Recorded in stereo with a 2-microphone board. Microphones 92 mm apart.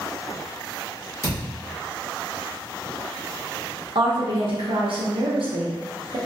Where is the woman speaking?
70° right (ahead or behind), 0.7 m.